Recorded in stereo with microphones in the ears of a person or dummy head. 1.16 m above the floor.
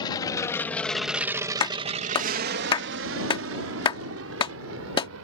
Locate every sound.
0.0 s an aircraft: 25° left (ahead or behind); by 5.2 s 70° right (ahead or behind)
1.6 s a clap: 25° left (ahead or behind)